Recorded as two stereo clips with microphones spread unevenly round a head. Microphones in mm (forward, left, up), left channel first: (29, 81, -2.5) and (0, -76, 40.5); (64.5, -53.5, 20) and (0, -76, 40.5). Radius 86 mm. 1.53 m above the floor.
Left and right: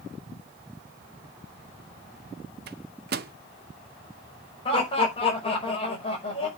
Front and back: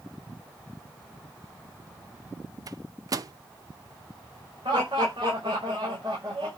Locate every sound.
2.7 s a microwave: 135° right, 0.8 m
4.7 s laughter: 140° left, 5.5 m